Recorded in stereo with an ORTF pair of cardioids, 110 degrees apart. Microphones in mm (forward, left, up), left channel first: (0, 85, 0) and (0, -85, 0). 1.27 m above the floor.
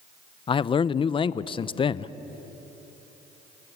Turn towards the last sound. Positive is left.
turn(degrees=30)